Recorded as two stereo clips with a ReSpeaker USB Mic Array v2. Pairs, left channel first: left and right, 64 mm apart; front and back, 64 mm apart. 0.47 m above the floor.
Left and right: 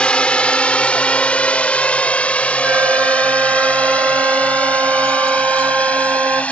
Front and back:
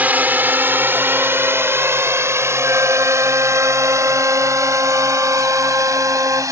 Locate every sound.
0.0 s a drone: 145° left; by 6.5 s 155° left
2.6 s a flute: 140° right